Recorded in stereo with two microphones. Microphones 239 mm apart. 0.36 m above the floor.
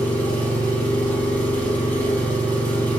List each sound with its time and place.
0.0 s an engine running: 5° left (ahead or behind), 4 m